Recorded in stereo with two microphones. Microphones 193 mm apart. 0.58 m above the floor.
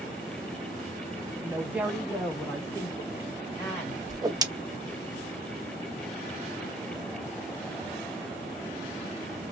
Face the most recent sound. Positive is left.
turn(degrees=-20)  # may be behind; listen again after turning